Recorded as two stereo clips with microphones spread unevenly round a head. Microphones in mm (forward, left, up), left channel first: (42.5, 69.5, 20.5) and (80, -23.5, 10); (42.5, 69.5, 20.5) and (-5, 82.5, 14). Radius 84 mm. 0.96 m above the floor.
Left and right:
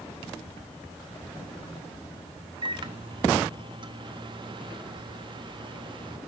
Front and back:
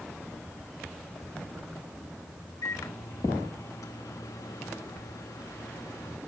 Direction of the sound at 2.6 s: 30° right.